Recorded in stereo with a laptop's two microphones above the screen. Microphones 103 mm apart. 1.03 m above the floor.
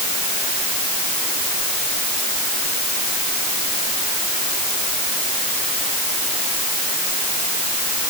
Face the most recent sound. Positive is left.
No sound to turn to.